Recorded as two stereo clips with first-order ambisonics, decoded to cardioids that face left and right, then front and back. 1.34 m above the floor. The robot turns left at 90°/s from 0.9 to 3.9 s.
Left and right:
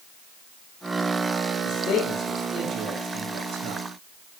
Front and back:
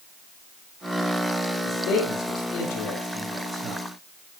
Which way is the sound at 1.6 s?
55° left.